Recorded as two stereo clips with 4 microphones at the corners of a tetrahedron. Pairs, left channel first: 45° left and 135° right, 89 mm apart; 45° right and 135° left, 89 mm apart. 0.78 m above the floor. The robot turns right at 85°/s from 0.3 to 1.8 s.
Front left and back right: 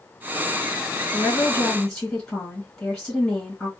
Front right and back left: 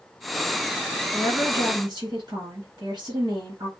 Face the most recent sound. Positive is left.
turn(degrees=115)